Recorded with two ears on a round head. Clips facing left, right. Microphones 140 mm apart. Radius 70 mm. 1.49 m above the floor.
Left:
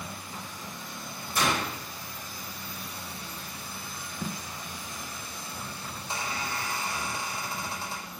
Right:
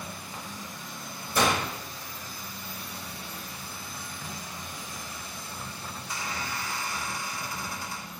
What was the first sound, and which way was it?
A gunshot, 80° right.